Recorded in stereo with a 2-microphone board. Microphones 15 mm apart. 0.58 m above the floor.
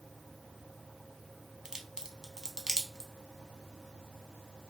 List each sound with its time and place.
1.6 s a crack: 40° right (ahead or behind), 0.7 m